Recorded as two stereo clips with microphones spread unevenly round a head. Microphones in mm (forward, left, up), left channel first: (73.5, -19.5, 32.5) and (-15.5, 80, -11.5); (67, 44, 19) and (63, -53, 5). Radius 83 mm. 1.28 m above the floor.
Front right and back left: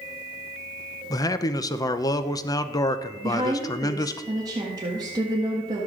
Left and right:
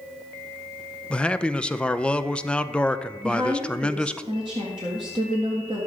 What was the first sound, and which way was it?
A man speaking, 10° left.